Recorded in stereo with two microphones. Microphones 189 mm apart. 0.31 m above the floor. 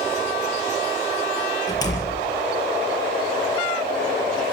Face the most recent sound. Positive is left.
turn(degrees=20)  # may be behind; listen again after turning